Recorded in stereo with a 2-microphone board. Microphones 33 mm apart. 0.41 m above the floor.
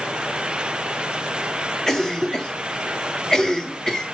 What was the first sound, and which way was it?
A cough, 15° left (ahead or behind).